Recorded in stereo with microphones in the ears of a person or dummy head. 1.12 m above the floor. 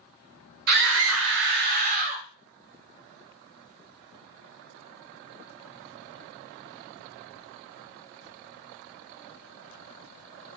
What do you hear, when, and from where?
0.7 s a scream: 50° right (ahead or behind), 0.7 m; by 2.2 s 35° right (ahead or behind), 1.3 m